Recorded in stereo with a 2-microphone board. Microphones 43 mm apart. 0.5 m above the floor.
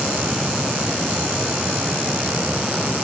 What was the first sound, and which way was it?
Only background noise.